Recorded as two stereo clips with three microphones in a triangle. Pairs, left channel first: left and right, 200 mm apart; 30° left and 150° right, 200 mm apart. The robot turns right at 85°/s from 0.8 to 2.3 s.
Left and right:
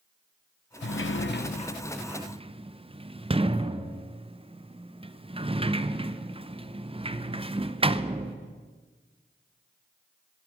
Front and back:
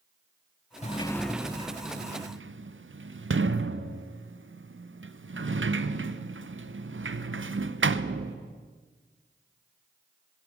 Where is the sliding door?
80° left, 0.5 m; by 8.4 s 155° right, 0.5 m.